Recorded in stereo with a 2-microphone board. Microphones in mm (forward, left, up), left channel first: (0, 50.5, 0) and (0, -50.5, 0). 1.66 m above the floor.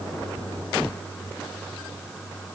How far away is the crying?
I don't hear crying.